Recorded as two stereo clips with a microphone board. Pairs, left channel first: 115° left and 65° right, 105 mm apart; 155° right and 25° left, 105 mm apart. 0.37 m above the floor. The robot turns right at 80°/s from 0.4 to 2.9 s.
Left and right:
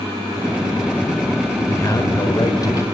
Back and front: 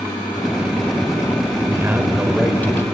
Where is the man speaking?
60° left, 1.1 m; by 2.9 s 155° left, 1.1 m.